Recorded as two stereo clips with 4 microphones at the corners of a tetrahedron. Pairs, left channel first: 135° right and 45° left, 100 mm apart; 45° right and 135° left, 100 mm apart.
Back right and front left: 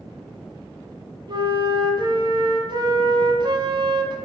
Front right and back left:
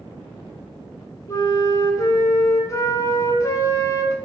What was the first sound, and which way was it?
A flute, 10° left.